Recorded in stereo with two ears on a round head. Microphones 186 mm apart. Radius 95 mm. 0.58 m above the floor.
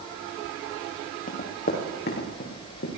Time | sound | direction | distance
1.3 | running footsteps | 40° left (ahead or behind) | 4 m